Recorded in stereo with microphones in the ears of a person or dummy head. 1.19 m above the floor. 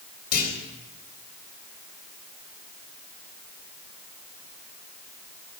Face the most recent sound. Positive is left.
turn(degrees=50)  # may be behind; listen again after turning